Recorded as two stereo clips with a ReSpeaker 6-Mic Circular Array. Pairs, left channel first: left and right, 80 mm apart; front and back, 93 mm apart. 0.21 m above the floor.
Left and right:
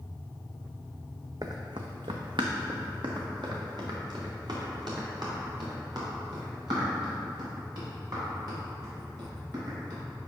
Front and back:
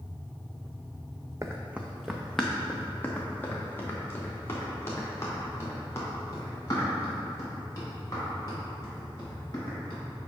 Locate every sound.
1.4 s running footsteps: 125° right, 0.7 m; by 10.0 s 55° right, 7 m